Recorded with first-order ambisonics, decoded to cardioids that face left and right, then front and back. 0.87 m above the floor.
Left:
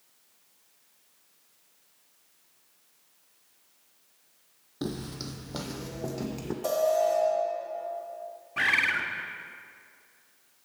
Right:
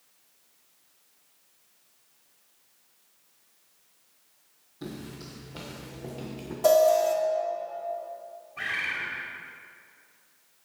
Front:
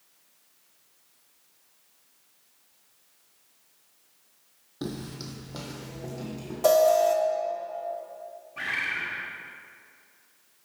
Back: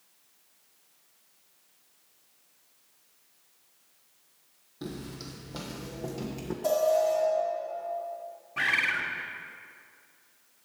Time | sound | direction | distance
4.8 | footsteps | 60° left | 1.2 m
6.6 | an alarm | 30° right | 1.6 m
8.6 | a bird | 115° left | 0.9 m